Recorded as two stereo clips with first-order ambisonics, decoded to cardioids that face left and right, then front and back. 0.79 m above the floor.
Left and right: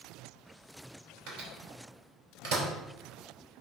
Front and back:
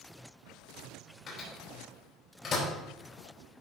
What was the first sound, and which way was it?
A microwave, 65° right.